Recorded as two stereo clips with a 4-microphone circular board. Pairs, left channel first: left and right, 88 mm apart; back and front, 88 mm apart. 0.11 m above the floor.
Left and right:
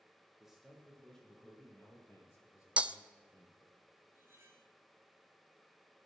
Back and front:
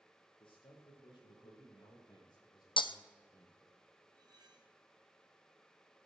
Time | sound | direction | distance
0.4 | a man speaking | 175° right | 4 m
2.8 | breaking glass | 165° right | 0.5 m
4.1 | cutlery clinking | 30° right | 1.9 m